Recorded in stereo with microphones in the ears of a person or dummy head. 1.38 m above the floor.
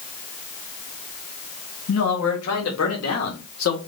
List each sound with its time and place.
1.9 s a man speaking: 75° left (ahead or behind), 2.5 m; by 3.8 s 80° left, 1.6 m